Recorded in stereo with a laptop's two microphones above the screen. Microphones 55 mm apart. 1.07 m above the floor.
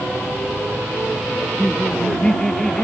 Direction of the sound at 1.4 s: 10° left (ahead or behind).